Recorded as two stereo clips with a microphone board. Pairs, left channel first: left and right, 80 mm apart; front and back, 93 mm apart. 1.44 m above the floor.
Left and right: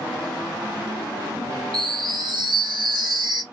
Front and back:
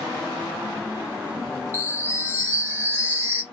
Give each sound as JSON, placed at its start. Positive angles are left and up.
{"t": 1.7, "sound": "a chime", "azimuth_deg": -115, "distance_m": 1.8}